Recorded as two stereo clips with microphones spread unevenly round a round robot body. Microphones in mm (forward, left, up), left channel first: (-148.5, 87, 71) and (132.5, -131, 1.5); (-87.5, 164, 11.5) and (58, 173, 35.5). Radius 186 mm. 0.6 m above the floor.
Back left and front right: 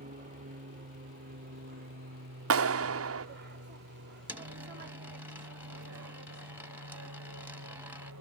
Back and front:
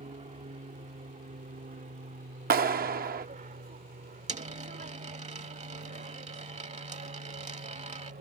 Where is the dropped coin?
45° left.